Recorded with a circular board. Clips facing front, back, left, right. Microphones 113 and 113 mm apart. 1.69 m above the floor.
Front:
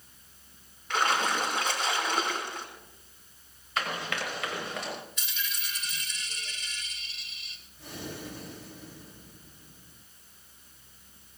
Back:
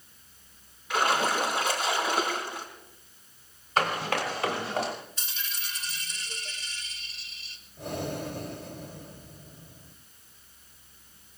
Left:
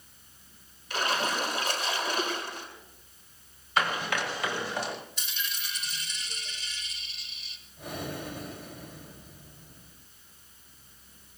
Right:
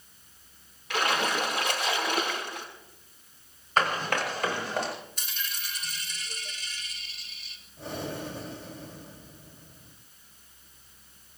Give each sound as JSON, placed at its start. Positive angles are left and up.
{"t": 0.9, "sound": "a splash", "azimuth_deg": -95, "distance_m": 5.5}
{"t": 3.8, "sound": "running footsteps", "azimuth_deg": -135, "distance_m": 6.5}
{"t": 5.2, "sound": "a dropped coin", "azimuth_deg": -130, "distance_m": 3.0}
{"t": 7.8, "sound": "breathing", "azimuth_deg": -150, "distance_m": 3.0}